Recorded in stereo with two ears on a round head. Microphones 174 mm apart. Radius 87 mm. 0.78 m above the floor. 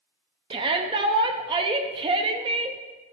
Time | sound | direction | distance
0.5 | a shout | 25° right (ahead or behind) | 0.8 m